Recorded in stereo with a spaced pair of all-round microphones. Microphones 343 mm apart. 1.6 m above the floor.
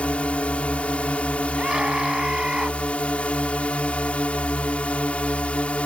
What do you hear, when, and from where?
0.0 s a drone: 5° left (ahead or behind)
1.6 s a scream: centre (ahead or behind)